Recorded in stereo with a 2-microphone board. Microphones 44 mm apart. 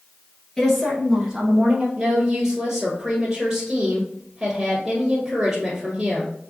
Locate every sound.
0.6 s a woman speaking: 15° left (ahead or behind), 1.4 m; by 1.9 s 30° right (ahead or behind), 1.6 m
2.0 s a woman speaking: 15° right (ahead or behind), 1.2 m